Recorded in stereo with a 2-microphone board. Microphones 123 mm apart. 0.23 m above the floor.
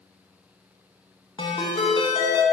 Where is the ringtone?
50° left (ahead or behind), 1.0 m.